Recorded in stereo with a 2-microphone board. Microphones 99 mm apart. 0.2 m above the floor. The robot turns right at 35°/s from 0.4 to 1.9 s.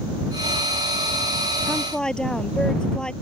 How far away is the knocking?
I don't hear knocking.